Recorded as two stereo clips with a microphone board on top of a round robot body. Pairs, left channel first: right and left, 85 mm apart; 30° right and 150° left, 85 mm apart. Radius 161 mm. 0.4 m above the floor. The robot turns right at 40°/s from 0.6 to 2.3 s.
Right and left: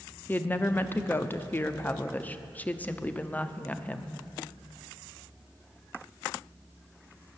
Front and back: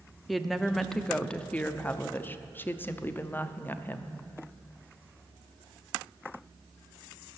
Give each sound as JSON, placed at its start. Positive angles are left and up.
{"t": 0.3, "sound": "a woman speaking", "azimuth_deg": -120, "distance_m": 0.9}